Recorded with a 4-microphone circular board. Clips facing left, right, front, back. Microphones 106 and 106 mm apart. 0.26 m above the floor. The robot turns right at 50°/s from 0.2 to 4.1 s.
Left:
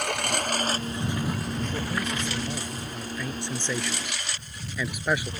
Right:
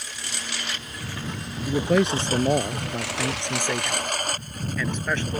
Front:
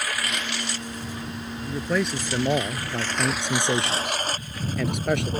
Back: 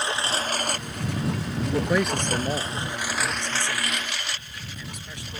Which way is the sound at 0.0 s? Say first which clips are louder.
Left 10 dB, back 3 dB; 115° left.